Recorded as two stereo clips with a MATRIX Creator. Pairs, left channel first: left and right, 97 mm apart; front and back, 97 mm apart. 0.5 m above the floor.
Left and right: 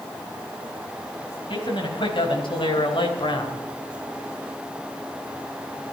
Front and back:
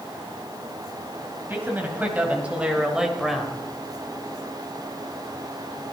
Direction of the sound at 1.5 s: 110° left.